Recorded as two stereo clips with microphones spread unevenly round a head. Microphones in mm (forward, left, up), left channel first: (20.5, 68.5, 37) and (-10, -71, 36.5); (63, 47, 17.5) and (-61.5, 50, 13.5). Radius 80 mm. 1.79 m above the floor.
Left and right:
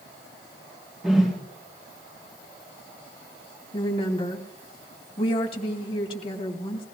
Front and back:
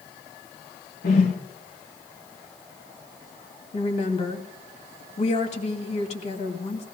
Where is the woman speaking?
25° left, 2.5 m.